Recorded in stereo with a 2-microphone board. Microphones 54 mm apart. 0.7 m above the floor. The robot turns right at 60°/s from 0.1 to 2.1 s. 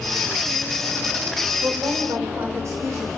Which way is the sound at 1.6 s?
55° right (ahead or behind).